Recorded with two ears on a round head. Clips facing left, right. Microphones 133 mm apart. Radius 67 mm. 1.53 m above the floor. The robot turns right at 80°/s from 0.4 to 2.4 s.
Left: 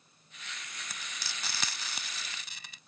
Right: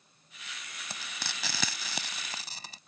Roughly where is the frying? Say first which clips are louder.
Right 5 dB; right.